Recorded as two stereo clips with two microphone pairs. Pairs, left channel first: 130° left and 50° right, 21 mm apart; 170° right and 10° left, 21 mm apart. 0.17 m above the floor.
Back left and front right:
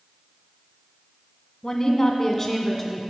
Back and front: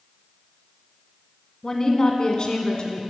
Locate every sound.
1.6 s a woman speaking: 145° left, 1.5 m; by 3.0 s 150° right, 1.8 m